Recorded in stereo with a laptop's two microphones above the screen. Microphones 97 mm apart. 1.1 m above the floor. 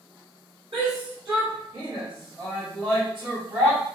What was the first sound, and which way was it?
A shout, 60° right (ahead or behind).